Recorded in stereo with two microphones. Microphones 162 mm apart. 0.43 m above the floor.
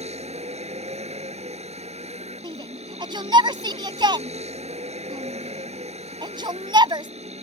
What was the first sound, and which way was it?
A vehicle, 45° right (ahead or behind).